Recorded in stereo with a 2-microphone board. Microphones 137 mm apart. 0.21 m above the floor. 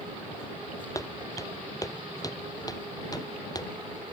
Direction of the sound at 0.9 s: 25° left (ahead or behind).